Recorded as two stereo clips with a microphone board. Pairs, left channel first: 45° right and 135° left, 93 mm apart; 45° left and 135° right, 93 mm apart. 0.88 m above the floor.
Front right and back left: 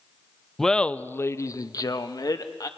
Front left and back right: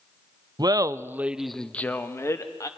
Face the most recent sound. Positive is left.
turn(degrees=-5)